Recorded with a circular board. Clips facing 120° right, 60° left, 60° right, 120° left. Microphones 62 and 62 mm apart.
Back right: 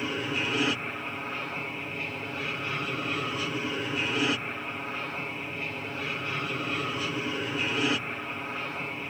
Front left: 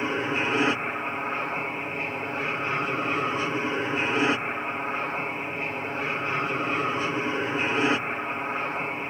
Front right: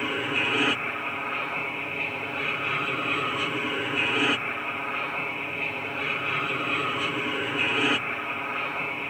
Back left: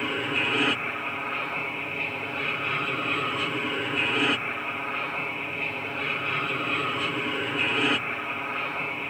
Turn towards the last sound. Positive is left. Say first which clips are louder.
# front left 4 dB, even
turn(degrees=25)